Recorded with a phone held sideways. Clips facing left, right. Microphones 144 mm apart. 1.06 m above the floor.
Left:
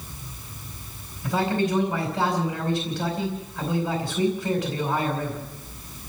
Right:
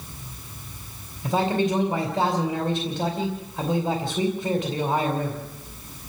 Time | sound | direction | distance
1.2 | a man speaking | 40° right (ahead or behind) | 4.5 m